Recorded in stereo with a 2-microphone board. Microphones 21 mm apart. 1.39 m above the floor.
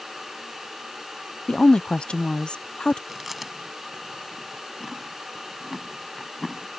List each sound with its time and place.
1.5 s a woman speaking: 50° left (ahead or behind)
3.1 s chewing: 10° right (ahead or behind)